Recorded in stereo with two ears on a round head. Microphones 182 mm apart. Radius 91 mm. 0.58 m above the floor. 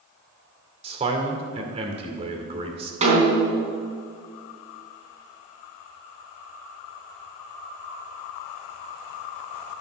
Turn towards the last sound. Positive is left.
turn(degrees=-35)  # may be behind; listen again after turning